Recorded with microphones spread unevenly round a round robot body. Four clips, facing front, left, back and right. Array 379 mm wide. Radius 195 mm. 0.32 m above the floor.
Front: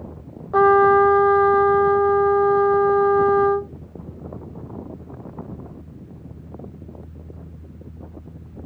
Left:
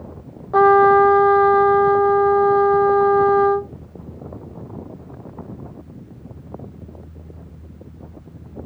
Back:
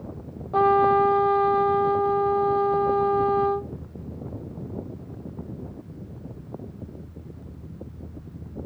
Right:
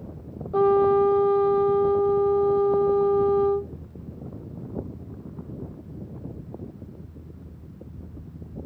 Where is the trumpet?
80° left.